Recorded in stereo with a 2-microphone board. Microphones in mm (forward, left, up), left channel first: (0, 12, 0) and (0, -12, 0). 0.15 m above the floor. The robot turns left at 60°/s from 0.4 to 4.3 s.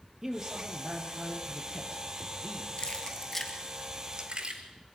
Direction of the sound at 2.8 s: 40° left (ahead or behind).